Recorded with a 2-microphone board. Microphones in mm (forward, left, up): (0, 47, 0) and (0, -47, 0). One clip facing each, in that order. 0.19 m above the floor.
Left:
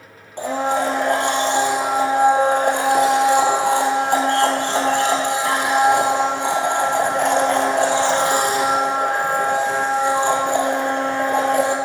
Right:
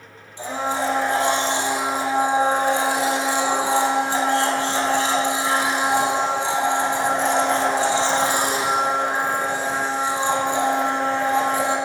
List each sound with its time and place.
0.4 s a blender: 65° left (ahead or behind), 2.5 m